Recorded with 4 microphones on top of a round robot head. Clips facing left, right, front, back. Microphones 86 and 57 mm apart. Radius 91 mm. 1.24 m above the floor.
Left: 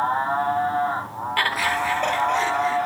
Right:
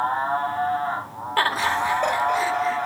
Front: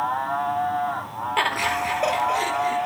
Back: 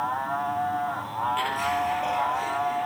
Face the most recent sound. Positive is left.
turn(degrees=0)